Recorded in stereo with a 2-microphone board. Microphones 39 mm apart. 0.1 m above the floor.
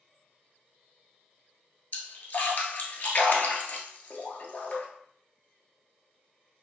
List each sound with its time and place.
1.9 s a splash: 45° left (ahead or behind), 0.9 m